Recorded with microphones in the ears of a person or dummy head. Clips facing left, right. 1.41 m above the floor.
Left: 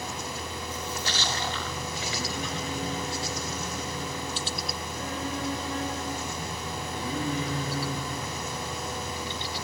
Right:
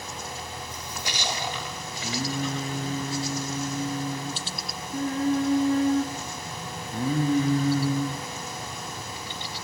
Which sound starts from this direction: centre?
A splash, at 0.7 s.